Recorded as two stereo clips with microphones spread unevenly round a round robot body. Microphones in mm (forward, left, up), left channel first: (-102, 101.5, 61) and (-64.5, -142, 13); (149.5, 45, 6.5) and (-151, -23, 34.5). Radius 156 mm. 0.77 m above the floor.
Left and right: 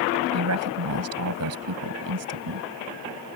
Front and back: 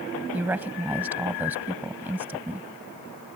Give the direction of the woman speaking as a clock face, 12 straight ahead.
3 o'clock.